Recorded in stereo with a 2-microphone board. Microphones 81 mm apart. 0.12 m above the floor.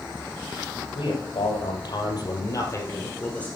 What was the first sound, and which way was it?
A man speaking, 75° left (ahead or behind).